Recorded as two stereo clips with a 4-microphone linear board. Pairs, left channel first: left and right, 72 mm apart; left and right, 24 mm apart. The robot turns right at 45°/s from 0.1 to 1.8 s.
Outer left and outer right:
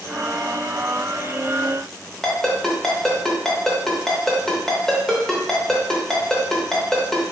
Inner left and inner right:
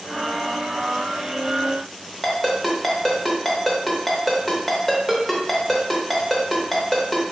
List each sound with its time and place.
2.2 s a ringtone: 5° left (ahead or behind), 1.0 m